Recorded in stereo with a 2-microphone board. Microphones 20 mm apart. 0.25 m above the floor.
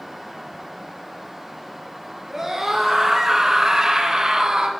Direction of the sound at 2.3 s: 30° right (ahead or behind).